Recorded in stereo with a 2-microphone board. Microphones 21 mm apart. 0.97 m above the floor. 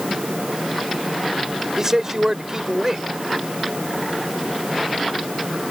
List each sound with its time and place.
1.8 s a man speaking: 30° right (ahead or behind)